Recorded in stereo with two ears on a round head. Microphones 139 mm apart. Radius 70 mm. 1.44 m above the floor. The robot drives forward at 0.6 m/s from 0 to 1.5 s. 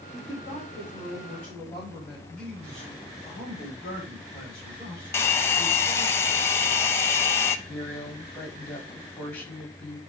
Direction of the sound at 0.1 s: 15° left (ahead or behind).